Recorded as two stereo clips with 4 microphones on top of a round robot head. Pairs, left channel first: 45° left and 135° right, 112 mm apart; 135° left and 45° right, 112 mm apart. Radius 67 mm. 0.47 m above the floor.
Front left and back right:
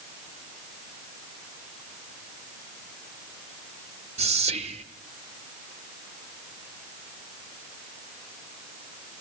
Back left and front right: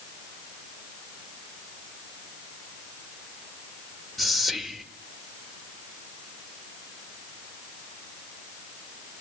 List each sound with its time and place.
4.2 s whispering: 135° right, 1.6 m